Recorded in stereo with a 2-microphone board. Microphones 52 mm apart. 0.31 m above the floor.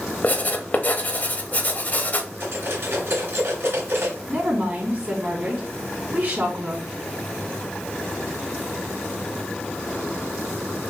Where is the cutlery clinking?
50° right (ahead or behind), 2.5 m.